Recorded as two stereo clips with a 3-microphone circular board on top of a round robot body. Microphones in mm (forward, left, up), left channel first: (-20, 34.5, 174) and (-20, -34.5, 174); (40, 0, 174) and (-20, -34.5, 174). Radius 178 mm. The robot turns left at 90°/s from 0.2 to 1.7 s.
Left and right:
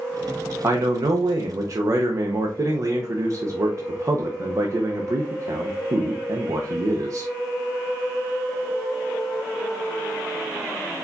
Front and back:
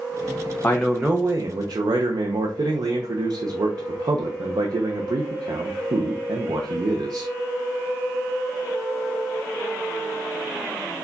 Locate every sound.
0.6 s a man speaking: 35° right, 0.7 m; by 7.3 s 135° right, 0.7 m